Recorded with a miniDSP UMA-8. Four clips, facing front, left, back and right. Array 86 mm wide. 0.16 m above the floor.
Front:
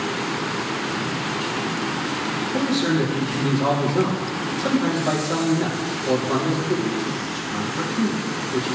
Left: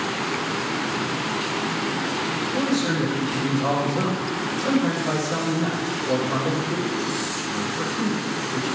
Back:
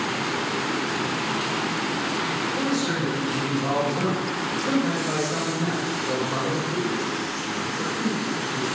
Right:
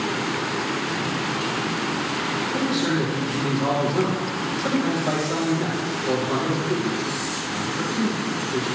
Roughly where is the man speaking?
Ahead.